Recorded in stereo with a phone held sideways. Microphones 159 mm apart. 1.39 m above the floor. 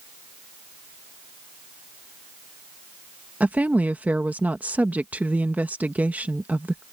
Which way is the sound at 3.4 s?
10° right (ahead or behind).